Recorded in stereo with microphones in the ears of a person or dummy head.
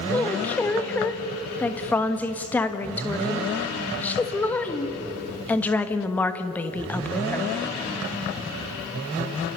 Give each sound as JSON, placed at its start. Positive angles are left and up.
{"t": 0.1, "sound": "a woman speaking", "side_deg": 15, "distance_m": 1.2}